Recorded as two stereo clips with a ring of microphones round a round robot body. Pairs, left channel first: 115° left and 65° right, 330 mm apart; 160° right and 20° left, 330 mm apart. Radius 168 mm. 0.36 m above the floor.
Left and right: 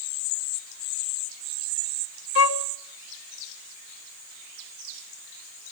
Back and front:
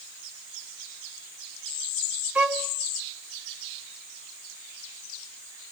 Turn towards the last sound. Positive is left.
turn(degrees=105)